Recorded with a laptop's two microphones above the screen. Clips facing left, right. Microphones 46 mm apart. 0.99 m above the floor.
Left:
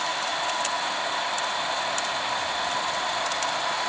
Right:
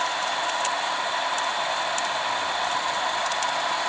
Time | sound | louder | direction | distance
0.0 | a machine running | right 2 dB | 15° right (ahead or behind) | 7 m